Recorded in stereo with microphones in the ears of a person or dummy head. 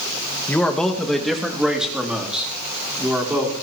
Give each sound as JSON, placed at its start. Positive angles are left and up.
{"t": 0.5, "sound": "a man speaking", "side_deg": 5, "distance_m": 1.4}